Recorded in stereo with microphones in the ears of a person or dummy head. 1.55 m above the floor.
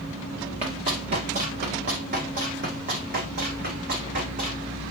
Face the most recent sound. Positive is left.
turn(degrees=-45)  # may be behind; listen again after turning